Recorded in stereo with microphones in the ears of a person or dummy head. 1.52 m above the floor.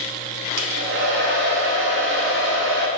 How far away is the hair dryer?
About 1.6 m.